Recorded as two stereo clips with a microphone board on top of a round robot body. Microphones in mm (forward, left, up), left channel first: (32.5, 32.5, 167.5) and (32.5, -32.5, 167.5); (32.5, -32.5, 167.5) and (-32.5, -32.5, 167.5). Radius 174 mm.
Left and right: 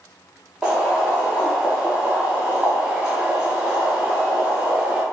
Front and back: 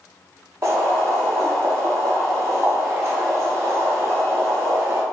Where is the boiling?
160° right, 1.3 m.